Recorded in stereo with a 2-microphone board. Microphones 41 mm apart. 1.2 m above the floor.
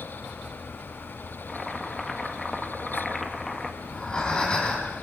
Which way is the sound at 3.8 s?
20° left (ahead or behind).